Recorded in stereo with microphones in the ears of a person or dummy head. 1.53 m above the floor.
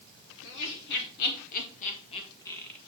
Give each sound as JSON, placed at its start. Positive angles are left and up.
{"t": 0.4, "sound": "laughter", "side_deg": 65, "distance_m": 3.0}